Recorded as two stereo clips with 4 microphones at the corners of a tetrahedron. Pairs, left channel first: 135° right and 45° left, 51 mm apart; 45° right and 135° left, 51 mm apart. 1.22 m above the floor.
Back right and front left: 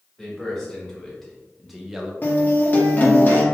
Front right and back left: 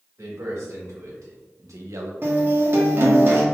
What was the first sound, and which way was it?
A man speaking, 145° left.